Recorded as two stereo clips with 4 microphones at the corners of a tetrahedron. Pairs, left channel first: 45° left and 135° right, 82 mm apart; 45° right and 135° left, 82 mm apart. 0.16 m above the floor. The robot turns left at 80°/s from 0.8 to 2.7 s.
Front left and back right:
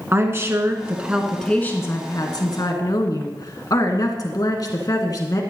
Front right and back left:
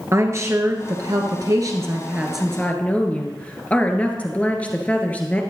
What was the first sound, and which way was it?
A woman speaking, 175° left.